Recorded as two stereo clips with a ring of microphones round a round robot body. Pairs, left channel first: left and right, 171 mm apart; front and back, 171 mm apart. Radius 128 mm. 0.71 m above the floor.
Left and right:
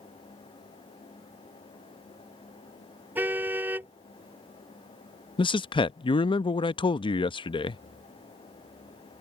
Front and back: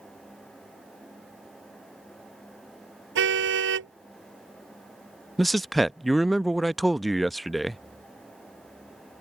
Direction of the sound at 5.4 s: 90° left.